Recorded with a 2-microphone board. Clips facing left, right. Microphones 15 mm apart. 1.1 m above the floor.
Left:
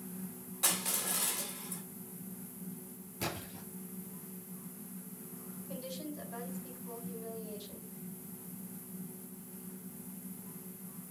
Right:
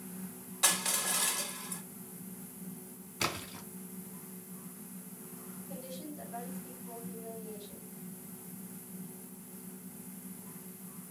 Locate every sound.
0.6 s crushing: 20° right (ahead or behind), 4 m
3.2 s a splash: 45° right (ahead or behind), 3 m
5.7 s a woman speaking: 25° left (ahead or behind), 5 m